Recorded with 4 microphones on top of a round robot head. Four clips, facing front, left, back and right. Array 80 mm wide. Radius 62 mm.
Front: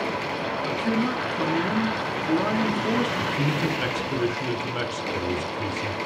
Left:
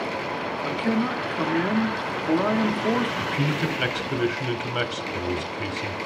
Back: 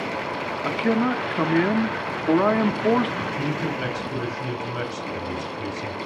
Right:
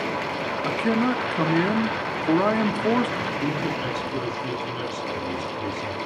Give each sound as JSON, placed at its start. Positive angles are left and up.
{"t": 0.7, "sound": "a man speaking", "azimuth_deg": -155, "distance_m": 0.8}
{"t": 3.2, "sound": "a man speaking", "azimuth_deg": 80, "distance_m": 1.5}